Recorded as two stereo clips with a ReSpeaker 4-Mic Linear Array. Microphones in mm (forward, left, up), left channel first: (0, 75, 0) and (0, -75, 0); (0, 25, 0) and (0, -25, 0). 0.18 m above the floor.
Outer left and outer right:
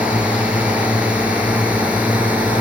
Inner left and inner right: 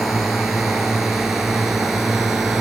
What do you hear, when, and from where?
0.0 s a drone: 10° right (ahead or behind)